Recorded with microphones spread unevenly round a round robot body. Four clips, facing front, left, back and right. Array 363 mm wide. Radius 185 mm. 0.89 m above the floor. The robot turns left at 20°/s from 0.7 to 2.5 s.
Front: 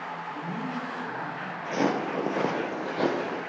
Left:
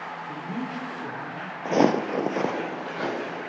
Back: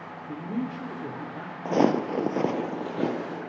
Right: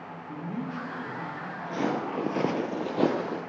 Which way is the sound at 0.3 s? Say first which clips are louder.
Even, back 4 dB; 175° left.